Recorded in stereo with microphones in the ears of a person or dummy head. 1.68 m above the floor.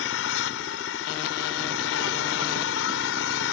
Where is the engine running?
75° left (ahead or behind).